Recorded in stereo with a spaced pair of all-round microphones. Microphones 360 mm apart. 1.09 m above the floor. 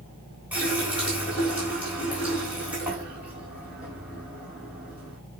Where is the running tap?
5° right (ahead or behind), 3.5 m.